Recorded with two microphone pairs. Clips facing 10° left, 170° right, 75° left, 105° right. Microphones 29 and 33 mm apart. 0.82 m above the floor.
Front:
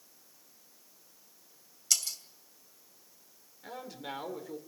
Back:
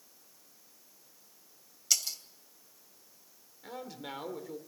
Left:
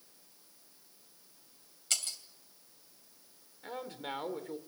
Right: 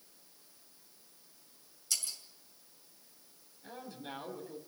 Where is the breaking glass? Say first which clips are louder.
Even, left 2 dB; 105° left, 2.5 m.